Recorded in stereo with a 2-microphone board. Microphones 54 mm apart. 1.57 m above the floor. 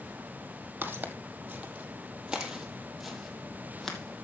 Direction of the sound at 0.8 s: 40° right (ahead or behind).